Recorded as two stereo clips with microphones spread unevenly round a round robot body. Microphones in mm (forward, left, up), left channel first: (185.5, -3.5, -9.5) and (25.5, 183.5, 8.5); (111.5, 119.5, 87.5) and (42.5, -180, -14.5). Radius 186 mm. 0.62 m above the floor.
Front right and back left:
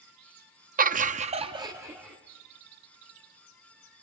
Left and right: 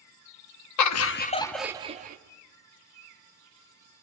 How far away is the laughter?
About 0.9 m.